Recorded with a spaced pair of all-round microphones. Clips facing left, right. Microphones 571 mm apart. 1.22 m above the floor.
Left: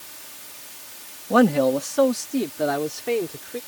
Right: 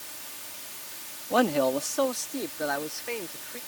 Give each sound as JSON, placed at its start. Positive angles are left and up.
{"t": 1.3, "sound": "a man speaking", "side_deg": 65}